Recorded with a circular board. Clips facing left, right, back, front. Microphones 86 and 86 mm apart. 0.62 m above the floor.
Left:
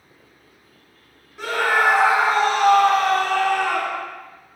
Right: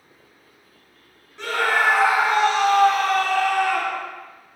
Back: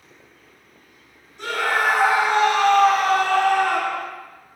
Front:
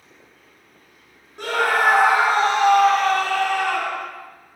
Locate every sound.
1.4 s a scream: 10° left, 1.9 m; by 4.0 s 140° left, 2.0 m